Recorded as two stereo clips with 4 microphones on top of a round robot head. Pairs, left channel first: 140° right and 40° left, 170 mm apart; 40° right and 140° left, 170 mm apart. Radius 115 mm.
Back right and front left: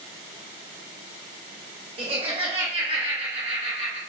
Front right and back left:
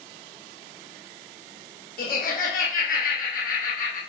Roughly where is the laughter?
Ahead.